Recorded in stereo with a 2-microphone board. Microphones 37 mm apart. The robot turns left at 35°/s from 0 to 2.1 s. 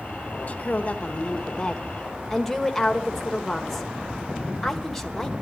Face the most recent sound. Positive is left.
turn(degrees=10)